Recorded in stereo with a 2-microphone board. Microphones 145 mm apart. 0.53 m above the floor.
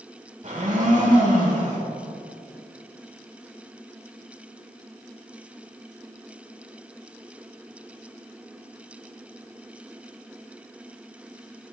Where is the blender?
60° right (ahead or behind), 1.4 m.